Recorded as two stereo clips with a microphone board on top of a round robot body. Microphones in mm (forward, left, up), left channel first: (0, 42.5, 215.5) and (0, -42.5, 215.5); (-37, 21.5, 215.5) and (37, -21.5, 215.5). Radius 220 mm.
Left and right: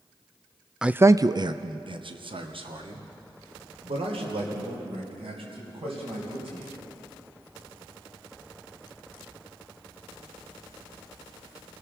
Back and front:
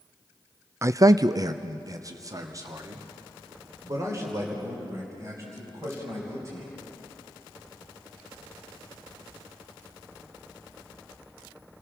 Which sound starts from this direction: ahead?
A man speaking, at 0.8 s.